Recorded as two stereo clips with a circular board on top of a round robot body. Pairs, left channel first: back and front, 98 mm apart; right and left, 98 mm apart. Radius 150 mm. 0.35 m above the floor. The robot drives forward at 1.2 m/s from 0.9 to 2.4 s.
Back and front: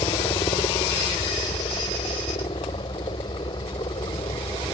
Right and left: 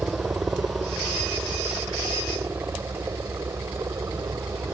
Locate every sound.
0.0 s a helicopter: 160° left; by 4.8 s 145° left